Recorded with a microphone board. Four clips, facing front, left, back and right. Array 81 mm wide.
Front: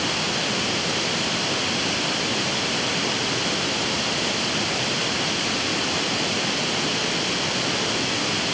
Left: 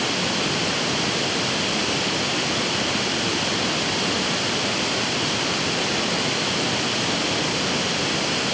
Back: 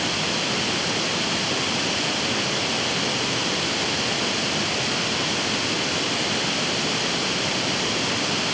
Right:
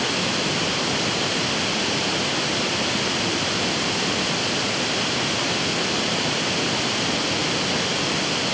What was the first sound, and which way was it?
Only background noise.